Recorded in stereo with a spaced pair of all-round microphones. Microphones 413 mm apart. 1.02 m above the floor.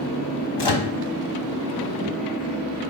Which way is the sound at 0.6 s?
75° left (ahead or behind).